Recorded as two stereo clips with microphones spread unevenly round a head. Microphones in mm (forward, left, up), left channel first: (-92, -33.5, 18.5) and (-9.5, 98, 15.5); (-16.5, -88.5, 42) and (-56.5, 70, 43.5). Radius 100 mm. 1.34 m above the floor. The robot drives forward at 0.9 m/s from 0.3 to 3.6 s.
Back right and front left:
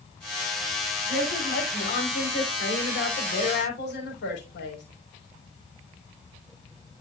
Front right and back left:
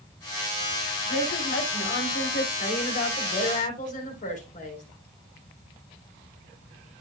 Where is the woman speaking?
80° right, 4 m; by 4.8 s 115° right, 4 m.